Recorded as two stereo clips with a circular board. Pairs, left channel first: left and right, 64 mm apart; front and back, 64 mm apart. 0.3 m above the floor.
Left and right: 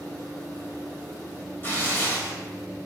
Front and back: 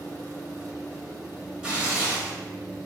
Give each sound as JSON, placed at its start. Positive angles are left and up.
{"t": 1.6, "sound": "tearing paper", "azimuth_deg": 120, "distance_m": 1.1}